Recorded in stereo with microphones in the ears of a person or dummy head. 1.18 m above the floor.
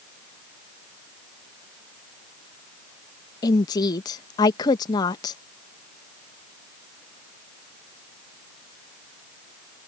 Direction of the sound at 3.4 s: 25° left (ahead or behind).